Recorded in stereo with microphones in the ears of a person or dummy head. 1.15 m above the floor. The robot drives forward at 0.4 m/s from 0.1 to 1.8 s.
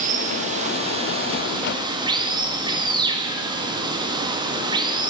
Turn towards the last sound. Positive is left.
turn(degrees=-25)  # may be behind; listen again after turning